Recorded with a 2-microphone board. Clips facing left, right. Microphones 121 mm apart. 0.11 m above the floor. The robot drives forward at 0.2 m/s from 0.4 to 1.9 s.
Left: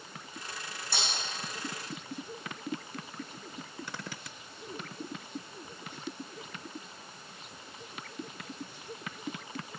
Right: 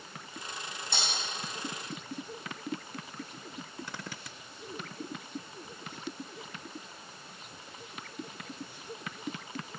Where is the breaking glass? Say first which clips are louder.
Even; 20° right (ahead or behind), 3 m.